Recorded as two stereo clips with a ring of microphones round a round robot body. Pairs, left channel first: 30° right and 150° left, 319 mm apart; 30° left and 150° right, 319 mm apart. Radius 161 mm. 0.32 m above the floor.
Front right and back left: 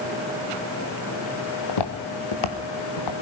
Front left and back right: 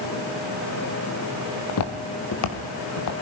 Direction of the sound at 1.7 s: 15° right.